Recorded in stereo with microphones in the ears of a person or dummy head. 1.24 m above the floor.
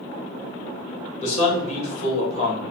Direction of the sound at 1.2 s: 50° left (ahead or behind).